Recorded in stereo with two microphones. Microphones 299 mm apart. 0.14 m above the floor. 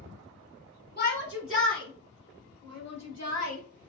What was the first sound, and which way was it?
A shout, 35° left (ahead or behind).